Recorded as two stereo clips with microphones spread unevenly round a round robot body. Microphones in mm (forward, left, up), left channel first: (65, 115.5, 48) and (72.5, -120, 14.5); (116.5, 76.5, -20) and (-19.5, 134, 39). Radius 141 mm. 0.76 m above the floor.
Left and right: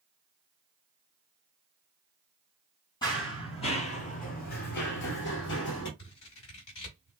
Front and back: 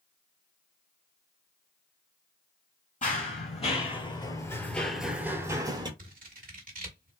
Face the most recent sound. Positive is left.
turn(degrees=140)